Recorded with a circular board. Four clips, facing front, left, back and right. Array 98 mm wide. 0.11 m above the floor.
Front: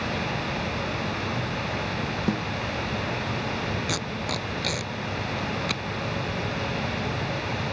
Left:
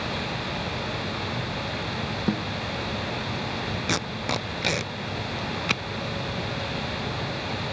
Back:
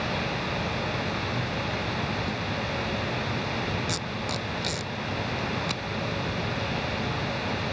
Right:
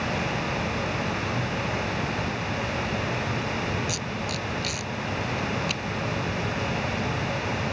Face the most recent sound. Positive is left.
turn(degrees=75)